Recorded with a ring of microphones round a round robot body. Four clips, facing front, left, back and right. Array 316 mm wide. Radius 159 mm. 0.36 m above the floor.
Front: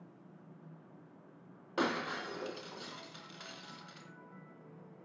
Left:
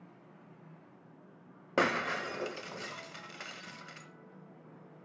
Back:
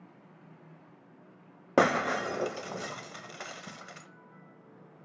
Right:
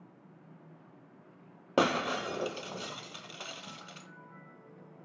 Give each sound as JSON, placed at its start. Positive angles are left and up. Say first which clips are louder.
{"t": 1.8, "sound": "breaking glass", "louder": "right 2 dB, back 10 dB", "azimuth_deg": -165, "distance_m": 1.2}